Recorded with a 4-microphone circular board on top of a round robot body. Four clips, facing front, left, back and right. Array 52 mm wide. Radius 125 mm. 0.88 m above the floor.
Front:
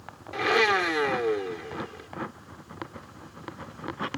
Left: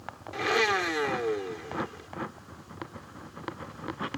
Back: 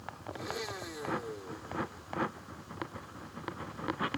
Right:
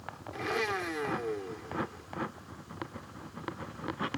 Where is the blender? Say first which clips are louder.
Left 7 dB, front 18 dB; 20° left.